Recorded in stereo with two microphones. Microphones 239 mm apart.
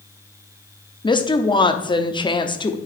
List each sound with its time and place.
1.0 s a woman speaking: 20° left (ahead or behind), 0.6 m